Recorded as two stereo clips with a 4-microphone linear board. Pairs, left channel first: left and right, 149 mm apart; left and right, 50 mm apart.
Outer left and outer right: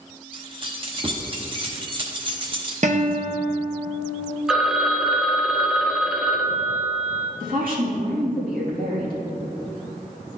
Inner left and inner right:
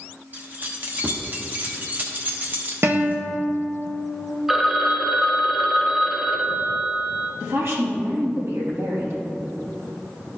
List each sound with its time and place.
0.3 s keys jangling: 35° right (ahead or behind), 1.0 m
2.8 s a guitar: 55° right (ahead or behind), 0.7 m
4.5 s a phone ringing: 5° right (ahead or behind), 0.6 m
7.4 s a woman speaking: 70° right (ahead or behind), 2 m